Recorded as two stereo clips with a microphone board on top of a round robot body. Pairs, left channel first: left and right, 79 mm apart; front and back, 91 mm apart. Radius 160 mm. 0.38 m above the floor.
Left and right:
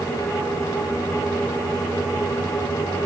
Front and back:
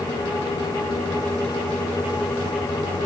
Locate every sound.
Only background noise.